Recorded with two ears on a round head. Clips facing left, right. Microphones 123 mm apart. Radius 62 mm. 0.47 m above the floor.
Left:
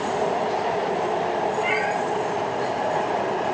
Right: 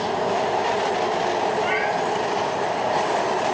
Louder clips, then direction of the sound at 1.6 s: Right 1 dB; 10° left (ahead or behind).